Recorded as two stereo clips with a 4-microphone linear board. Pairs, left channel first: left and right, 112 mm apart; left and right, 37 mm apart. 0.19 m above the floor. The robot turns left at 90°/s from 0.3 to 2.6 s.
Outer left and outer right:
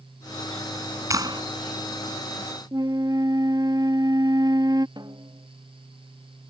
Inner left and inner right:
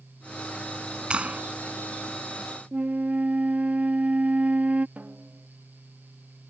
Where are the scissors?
I don't hear scissors.